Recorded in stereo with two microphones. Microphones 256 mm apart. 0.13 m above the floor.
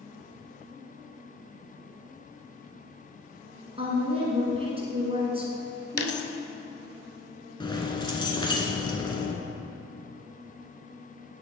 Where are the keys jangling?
20° left (ahead or behind), 0.9 m.